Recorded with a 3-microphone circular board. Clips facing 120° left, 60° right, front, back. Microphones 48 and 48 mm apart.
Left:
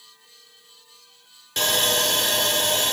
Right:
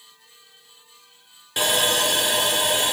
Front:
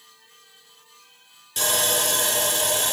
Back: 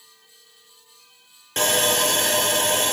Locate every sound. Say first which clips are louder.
1.6 s sawing: right 1 dB, back 4 dB; 140° right, 2 m